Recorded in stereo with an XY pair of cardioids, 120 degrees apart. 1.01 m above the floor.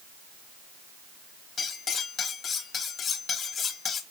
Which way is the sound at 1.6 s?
45° left.